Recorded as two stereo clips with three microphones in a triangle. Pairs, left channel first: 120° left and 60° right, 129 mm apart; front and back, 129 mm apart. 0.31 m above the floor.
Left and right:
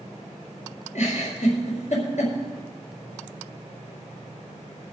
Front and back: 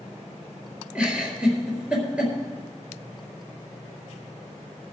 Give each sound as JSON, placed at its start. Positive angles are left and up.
{"t": 0.9, "sound": "a giggle", "azimuth_deg": 100, "distance_m": 4.5}